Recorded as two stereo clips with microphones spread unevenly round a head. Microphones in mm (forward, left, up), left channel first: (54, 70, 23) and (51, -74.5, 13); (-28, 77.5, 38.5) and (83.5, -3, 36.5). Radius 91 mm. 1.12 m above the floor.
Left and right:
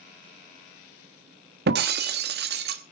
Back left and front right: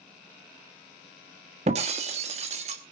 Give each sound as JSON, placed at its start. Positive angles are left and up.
{"t": 1.7, "sound": "breaking glass", "azimuth_deg": -90, "distance_m": 1.3}